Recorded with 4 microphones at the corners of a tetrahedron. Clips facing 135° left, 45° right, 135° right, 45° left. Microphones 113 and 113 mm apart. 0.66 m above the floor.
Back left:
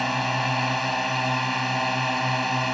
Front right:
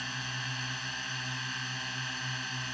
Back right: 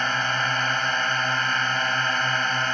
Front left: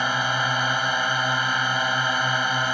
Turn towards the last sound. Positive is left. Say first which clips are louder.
# back left 16 dB, front left 1 dB
turn(degrees=125)